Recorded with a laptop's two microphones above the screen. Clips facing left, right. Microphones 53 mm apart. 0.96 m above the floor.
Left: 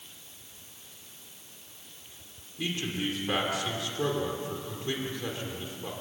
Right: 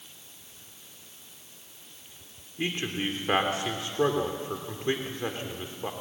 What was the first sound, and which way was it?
A man speaking, 35° right (ahead or behind).